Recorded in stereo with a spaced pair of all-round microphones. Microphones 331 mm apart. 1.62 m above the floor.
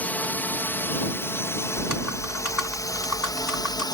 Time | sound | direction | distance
0.0 | a drone | 5° left (ahead or behind) | ?
1.8 | typing on a keyboard | 70° left (ahead or behind) | ?